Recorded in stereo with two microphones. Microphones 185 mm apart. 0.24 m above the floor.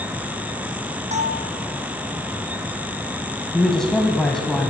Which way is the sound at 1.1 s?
40° right (ahead or behind).